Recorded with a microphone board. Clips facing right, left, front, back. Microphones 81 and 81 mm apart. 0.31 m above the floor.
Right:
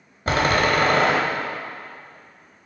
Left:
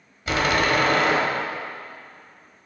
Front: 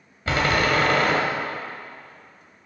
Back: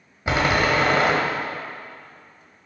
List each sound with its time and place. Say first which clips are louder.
0.3 s a door slam: right 2 dB, back 1 dB; 115° right, 1.1 m